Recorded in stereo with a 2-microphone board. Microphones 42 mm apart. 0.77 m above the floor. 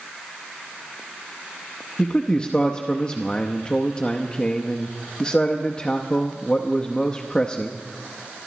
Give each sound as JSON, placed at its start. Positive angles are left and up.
{"t": 2.0, "sound": "a man speaking", "side_deg": 20, "distance_m": 0.7}